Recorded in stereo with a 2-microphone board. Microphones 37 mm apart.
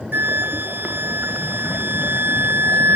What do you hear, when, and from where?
0.1 s a flute: 70° right (ahead or behind)